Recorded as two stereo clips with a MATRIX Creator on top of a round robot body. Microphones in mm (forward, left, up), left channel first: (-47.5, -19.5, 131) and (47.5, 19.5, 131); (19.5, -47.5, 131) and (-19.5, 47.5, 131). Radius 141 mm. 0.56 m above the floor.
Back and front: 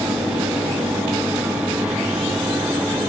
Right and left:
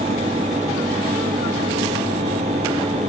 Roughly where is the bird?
No bird in this recording.